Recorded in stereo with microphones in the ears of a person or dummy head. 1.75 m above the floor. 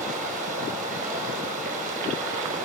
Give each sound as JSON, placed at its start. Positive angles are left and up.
{"t": 0.0, "sound": "running water", "side_deg": -40, "distance_m": 8.0}